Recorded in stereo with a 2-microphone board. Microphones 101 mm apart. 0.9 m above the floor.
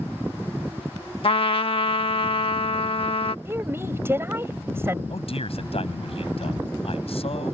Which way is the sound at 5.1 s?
75° left (ahead or behind).